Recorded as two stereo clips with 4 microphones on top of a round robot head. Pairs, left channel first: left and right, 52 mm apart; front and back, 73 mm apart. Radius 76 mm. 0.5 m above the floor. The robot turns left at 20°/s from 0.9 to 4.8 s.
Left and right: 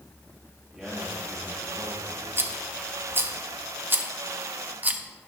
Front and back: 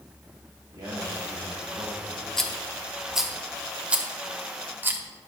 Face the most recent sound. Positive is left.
turn(degrees=-135)